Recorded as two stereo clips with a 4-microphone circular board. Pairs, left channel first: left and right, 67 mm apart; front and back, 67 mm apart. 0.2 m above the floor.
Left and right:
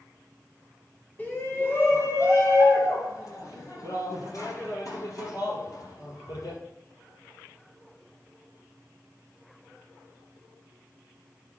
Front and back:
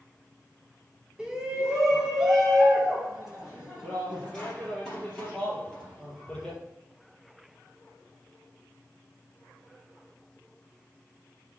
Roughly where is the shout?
Behind left.